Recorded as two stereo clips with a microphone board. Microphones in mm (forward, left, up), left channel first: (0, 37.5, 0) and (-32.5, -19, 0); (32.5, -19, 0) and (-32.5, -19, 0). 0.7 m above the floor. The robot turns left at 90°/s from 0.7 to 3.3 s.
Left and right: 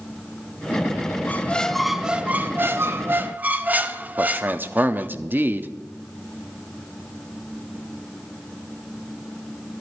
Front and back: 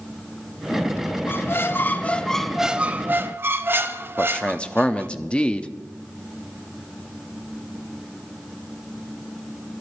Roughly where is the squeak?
Ahead.